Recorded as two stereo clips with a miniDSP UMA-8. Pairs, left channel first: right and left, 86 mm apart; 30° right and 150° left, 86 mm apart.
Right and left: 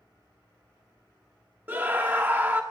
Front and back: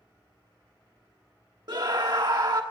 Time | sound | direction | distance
1.7 | a scream | 150° left | 1.2 m